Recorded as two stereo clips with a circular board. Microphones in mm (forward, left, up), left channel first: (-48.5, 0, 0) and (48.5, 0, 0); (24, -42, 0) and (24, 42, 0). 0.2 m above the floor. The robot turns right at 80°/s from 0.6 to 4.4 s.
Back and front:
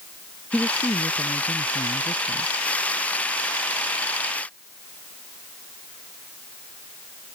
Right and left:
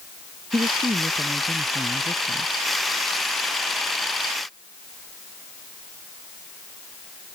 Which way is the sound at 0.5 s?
100° left.